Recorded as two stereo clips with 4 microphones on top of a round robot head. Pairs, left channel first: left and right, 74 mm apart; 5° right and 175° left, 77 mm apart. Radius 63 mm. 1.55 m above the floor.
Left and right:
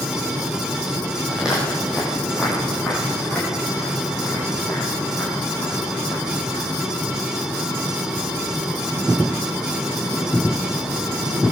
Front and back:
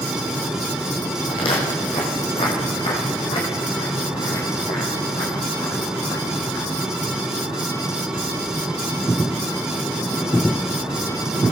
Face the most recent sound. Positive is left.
turn(degrees=20)